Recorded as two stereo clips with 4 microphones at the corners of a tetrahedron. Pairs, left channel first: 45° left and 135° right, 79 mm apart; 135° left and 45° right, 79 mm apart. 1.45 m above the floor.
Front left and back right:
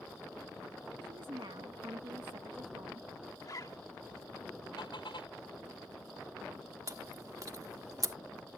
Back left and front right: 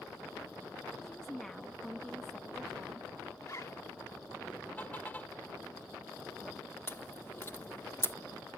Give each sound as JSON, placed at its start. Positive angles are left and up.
{"t": 1.0, "sound": "a woman speaking", "azimuth_deg": -140}
{"t": 3.4, "sound": "a zipper", "azimuth_deg": 85}
{"t": 4.8, "sound": "a car horn", "azimuth_deg": 65}
{"t": 6.9, "sound": "chewing", "azimuth_deg": -170}